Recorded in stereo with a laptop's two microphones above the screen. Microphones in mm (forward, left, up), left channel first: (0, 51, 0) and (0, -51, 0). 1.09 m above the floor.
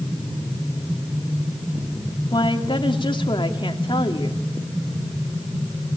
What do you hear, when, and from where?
2.3 s a woman speaking: 50° left (ahead or behind), 2.5 m